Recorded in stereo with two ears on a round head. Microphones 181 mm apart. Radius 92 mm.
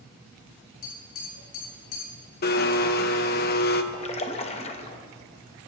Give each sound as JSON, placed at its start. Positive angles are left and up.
{"t": 0.8, "sound": "tapping", "side_deg": 75, "distance_m": 7.0}
{"t": 2.4, "sound": "a blender", "side_deg": 50, "distance_m": 0.9}
{"t": 3.9, "sound": "a splash", "side_deg": 30, "distance_m": 0.9}